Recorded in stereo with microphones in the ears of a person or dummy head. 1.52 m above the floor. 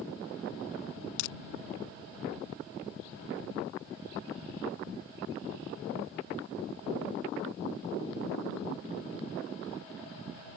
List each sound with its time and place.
1.2 s crushing: 70° left (ahead or behind)